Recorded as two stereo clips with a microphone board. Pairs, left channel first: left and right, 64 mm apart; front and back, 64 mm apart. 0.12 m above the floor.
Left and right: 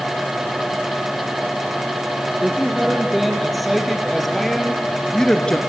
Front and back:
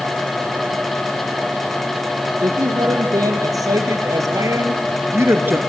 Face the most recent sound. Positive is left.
turn(degrees=145)